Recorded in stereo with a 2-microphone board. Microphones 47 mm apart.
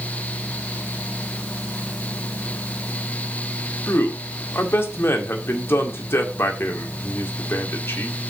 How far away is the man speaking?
About 2 m.